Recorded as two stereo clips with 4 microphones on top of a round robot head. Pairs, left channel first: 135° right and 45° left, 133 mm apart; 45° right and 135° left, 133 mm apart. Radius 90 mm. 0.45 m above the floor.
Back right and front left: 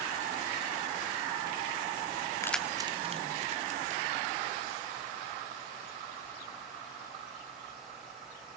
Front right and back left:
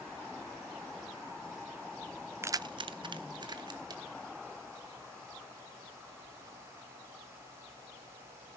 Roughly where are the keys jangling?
Behind.